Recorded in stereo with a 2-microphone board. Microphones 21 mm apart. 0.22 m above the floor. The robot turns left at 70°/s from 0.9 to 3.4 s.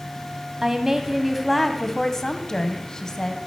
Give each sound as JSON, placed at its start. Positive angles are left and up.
{"t": 0.6, "sound": "a woman speaking", "azimuth_deg": -140, "distance_m": 1.0}